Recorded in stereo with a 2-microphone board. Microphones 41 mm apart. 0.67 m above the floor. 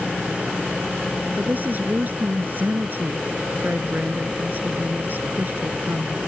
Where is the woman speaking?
45° right (ahead or behind).